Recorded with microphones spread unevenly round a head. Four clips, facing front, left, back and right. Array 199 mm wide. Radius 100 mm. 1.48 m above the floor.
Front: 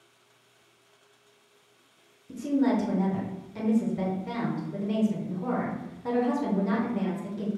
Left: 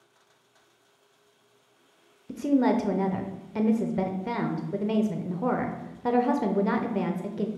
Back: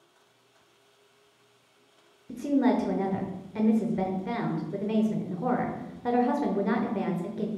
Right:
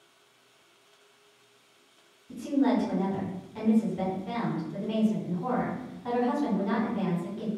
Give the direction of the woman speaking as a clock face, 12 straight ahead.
9 o'clock.